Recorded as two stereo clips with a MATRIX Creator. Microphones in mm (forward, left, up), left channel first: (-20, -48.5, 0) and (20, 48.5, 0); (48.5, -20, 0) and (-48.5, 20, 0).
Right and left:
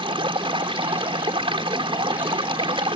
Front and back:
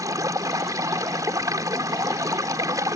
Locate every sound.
0.0 s running water: 100° left